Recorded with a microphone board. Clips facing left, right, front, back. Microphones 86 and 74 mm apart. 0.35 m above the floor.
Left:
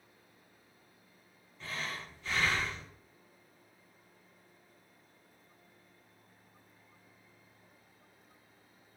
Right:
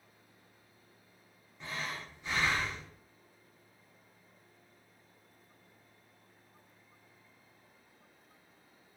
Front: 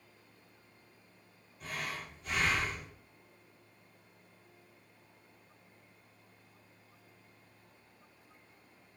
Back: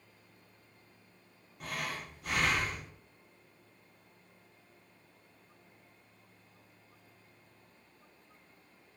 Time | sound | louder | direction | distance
1.6 | breathing | even, back 1 dB | 160° right | 0.5 m